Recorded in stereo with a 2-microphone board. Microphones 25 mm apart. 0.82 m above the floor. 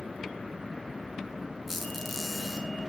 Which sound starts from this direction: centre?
A squeak, at 1.7 s.